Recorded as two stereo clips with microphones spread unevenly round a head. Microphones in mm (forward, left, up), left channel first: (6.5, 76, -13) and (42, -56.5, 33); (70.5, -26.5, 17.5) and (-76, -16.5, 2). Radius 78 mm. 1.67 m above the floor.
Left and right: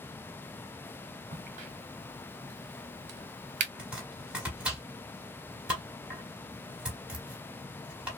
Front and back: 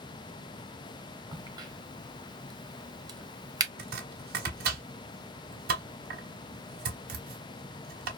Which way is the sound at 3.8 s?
160° right.